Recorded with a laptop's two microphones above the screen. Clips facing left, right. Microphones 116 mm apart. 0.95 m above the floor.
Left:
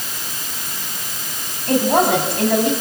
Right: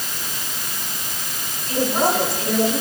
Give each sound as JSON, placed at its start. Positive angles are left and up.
{"t": 1.7, "sound": "a woman speaking", "side_deg": 60, "distance_m": 7.5}